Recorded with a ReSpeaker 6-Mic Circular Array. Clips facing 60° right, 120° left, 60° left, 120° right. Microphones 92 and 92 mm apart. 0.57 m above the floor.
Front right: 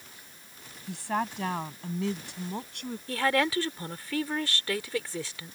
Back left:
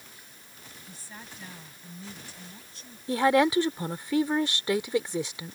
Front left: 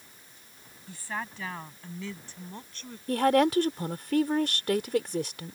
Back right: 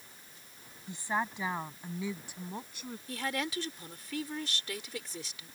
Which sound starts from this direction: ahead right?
A woman speaking, at 0.9 s.